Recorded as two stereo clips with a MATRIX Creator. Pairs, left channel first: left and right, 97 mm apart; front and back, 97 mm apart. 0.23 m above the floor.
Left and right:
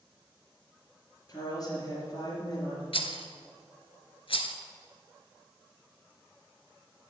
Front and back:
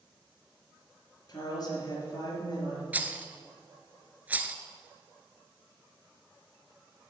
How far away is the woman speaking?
About 4.5 m.